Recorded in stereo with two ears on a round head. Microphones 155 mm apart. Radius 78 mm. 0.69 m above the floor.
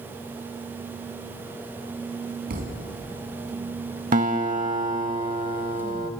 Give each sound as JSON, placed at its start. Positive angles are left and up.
{"t": 2.5, "sound": "a thud", "side_deg": -60, "distance_m": 2.0}
{"t": 4.1, "sound": "a guitar", "side_deg": -45, "distance_m": 0.7}